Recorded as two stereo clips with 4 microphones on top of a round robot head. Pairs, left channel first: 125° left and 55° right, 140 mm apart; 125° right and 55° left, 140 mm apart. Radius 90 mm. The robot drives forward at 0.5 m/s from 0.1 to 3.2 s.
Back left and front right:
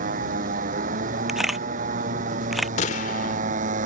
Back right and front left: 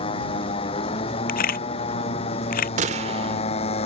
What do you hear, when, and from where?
0.0 s a motorcycle: 75° right; by 3.9 s 80° right
1.3 s a camera shutter: 140° right; by 2.7 s 145° right
2.8 s a gunshot: 90° left; by 3.4 s 100° left